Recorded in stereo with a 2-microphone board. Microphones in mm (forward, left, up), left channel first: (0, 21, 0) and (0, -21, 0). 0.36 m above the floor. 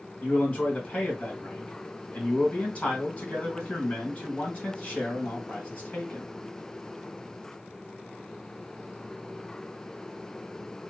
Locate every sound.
0.2 s a man speaking: 30° left (ahead or behind), 2.5 m